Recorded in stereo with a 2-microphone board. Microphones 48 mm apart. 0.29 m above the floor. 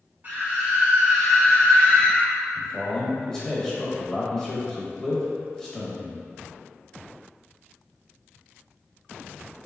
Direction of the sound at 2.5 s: 10° left (ahead or behind).